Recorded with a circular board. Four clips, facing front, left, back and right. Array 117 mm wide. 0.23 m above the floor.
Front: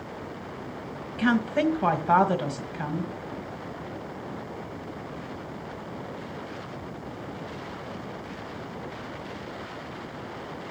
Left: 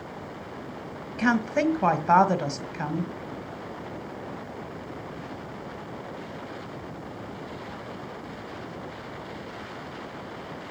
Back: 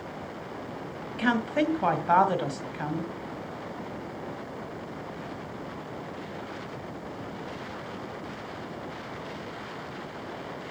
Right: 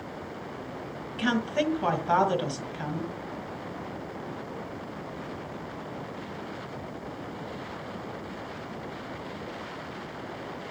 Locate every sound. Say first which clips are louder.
1.2 s a woman speaking: left 3 dB, front 2 dB; 90° left, 1.5 m